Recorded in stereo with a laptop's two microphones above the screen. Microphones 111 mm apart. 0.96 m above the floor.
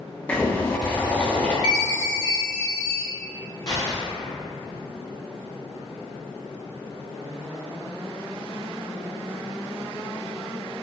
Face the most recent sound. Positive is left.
turn(degrees=35)  # may be behind; listen again after turning